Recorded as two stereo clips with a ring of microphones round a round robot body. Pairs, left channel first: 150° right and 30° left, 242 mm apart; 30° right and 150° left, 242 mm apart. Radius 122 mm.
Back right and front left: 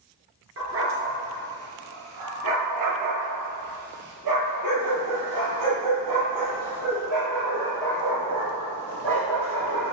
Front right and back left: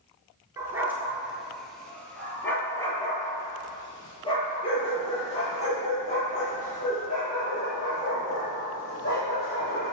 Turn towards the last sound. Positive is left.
turn(degrees=25)